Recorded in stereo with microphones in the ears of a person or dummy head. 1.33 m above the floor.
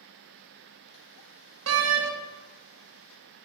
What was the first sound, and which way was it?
A door slam, 75° right (ahead or behind).